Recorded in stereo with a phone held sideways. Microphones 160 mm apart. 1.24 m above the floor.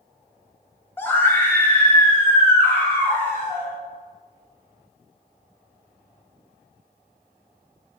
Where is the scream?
15° left (ahead or behind), 1.6 m.